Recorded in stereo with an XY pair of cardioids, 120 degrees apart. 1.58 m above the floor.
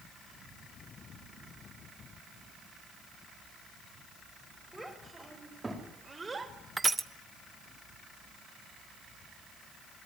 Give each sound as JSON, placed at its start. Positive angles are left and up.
{"t": 4.7, "sound": "a child speaking", "azimuth_deg": -5, "distance_m": 6.0}
{"t": 6.8, "sound": "crushing", "azimuth_deg": -15, "distance_m": 1.2}